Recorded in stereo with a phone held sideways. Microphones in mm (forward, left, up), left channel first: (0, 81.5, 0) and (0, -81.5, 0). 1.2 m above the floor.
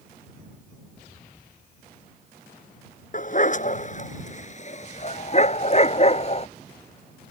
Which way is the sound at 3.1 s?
50° left (ahead or behind).